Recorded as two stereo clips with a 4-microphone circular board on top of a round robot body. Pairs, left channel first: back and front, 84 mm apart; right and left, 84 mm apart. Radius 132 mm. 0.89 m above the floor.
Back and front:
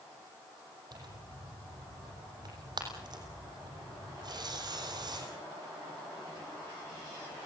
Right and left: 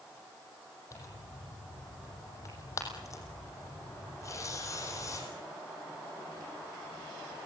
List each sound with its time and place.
0.9 s tearing paper: 40° right, 7 m